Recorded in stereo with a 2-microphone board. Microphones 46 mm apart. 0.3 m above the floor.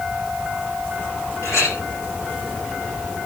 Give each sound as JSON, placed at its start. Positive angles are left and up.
{"t": 1.4, "sound": "a clink", "side_deg": 80, "distance_m": 10.0}